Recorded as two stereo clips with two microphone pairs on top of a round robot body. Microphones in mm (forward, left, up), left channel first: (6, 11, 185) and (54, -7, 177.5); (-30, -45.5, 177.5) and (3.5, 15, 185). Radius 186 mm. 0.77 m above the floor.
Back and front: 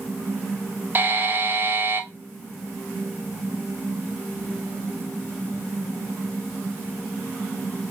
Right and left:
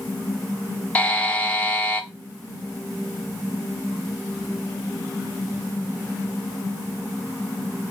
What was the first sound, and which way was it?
A buzzer, 55° right.